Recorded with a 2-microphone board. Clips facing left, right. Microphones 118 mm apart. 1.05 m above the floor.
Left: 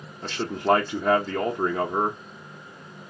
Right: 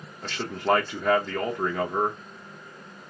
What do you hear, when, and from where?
0.2 s a man speaking: 10° left (ahead or behind), 0.8 m